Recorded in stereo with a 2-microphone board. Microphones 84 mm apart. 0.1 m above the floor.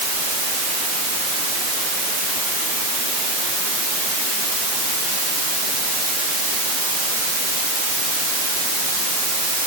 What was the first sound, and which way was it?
Only background noise.